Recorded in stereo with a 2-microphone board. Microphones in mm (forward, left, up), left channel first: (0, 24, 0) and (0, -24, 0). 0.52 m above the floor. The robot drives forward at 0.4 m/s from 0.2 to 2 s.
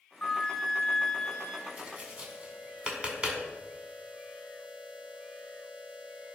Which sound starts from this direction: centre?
A flute, at 0.2 s.